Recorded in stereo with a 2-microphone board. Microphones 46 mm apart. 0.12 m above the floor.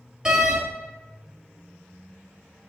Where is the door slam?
15° right (ahead or behind), 2 m.